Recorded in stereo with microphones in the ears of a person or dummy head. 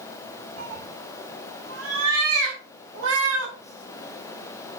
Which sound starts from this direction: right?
A cat meowing, at 0.6 s.